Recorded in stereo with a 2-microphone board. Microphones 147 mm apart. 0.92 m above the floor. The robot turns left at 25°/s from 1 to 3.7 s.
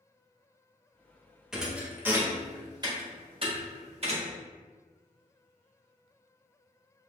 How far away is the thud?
About 0.8 m.